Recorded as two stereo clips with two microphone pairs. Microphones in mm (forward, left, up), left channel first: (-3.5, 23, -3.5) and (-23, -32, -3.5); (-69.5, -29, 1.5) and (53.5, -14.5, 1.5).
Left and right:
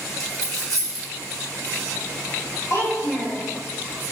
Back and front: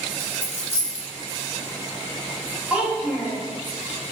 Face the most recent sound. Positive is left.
turn(degrees=85)